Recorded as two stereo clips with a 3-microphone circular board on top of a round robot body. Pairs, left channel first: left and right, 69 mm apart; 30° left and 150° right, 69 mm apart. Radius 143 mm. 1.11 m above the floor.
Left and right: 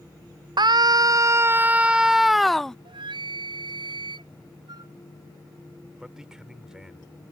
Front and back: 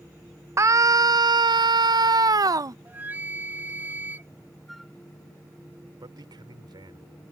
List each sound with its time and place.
0.6 s a scream: 100° right; by 2.8 s 175° left
2.9 s a flute: 80° right
4.7 s a flute: 55° right
6.0 s a man speaking: 170° right